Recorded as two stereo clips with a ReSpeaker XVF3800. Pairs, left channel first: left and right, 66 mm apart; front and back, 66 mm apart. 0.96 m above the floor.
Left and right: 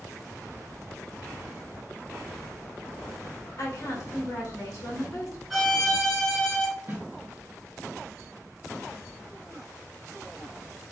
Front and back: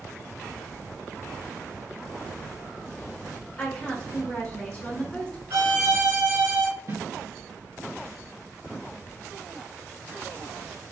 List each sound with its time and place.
3.6 s a woman speaking: 65° left, 1.0 m
5.5 s a violin: 170° left, 1.5 m
6.9 s a snare drum: 145° right, 1.7 m